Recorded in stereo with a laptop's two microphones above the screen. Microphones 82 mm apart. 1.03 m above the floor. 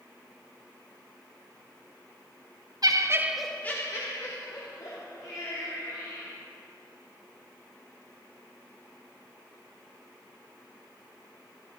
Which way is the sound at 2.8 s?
55° right (ahead or behind).